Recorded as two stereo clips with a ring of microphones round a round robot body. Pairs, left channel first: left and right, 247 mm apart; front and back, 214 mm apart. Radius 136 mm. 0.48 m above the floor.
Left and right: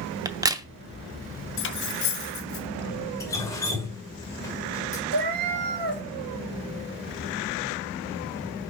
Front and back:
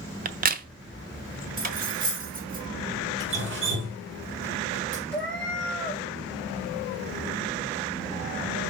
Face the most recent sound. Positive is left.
turn(degrees=-85)